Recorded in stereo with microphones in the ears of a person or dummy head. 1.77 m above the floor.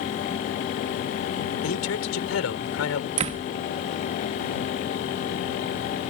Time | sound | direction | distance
1.6 | a man speaking | 90° left | ?
3.2 | a door slam | 35° right (ahead or behind) | ?